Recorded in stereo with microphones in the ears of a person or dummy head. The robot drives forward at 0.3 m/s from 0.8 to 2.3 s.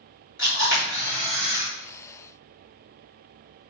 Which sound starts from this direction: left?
A camera shutter, at 0.4 s.